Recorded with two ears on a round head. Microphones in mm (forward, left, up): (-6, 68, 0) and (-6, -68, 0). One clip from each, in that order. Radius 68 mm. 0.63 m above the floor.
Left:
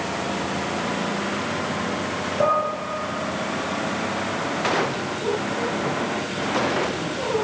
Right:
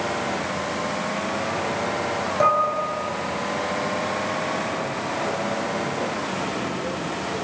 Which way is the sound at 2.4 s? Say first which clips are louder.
Right 2 dB; 60° right (ahead or behind).